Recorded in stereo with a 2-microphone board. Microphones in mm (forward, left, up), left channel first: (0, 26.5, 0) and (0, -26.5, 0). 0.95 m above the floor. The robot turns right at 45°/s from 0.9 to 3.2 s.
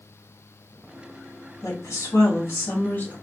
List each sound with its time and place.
1.6 s a woman speaking: 70° left, 1.9 m; by 3.1 s 140° left, 1.9 m